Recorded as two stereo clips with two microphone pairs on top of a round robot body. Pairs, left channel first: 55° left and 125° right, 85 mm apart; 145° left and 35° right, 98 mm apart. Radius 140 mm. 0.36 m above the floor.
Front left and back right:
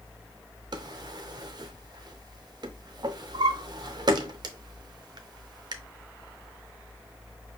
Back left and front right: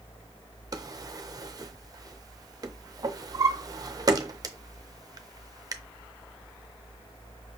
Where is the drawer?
85° right, 0.6 m.